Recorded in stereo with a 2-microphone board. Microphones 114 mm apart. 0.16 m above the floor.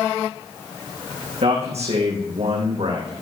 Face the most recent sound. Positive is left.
turn(degrees=-60)  # may be behind; listen again after turning